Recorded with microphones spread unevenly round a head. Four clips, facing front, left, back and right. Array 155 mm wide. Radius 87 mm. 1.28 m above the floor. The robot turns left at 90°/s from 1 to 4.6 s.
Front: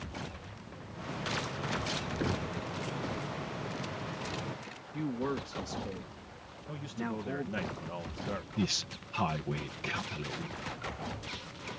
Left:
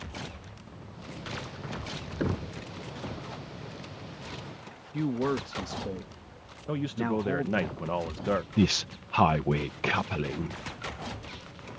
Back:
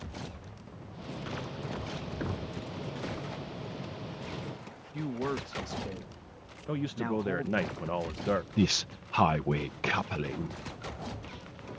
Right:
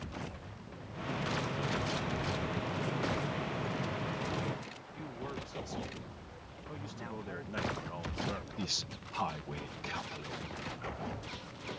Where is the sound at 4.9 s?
80° left.